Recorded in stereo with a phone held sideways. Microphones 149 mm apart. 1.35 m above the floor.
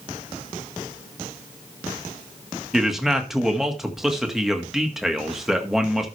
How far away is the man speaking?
About 1.7 m.